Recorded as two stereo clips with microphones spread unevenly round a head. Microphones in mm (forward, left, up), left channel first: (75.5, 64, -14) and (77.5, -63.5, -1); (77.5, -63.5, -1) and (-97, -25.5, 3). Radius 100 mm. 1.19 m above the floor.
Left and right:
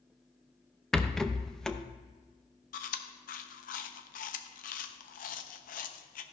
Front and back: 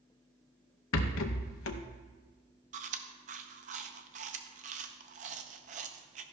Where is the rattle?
5° left, 0.7 m.